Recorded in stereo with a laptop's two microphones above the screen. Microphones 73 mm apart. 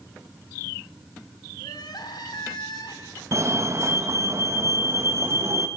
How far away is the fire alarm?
About 1.7 m.